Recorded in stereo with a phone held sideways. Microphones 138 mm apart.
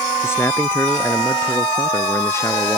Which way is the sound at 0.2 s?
20° left (ahead or behind).